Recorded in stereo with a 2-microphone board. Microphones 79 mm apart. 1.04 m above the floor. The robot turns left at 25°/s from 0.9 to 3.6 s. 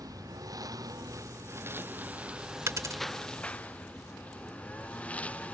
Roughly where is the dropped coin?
Right.